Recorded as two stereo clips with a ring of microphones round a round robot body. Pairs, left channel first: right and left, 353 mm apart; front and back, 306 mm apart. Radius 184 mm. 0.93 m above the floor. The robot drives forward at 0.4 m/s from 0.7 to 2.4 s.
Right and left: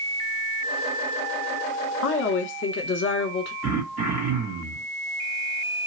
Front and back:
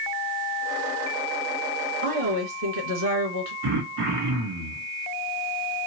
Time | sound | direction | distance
2.0 | a woman speaking | 135° right | 1.0 m
3.6 | throat clearing | 155° left | 1.1 m